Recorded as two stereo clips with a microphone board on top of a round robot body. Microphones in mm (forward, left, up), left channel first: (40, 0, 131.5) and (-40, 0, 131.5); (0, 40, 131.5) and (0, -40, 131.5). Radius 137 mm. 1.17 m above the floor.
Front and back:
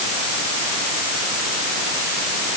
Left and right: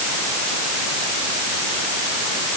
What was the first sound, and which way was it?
Only background noise.